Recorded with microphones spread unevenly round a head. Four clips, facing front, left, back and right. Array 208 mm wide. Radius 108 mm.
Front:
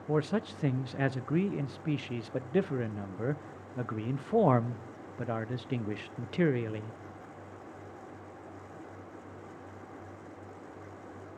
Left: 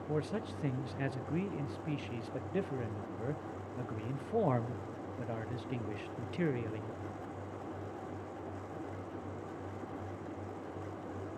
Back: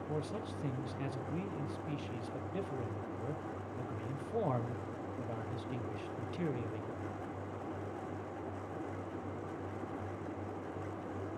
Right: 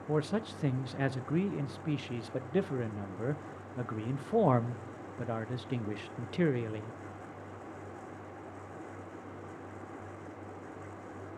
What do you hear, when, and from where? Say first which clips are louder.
0.1 s a man speaking: right 5 dB, front 11 dB; 25° right, 0.8 m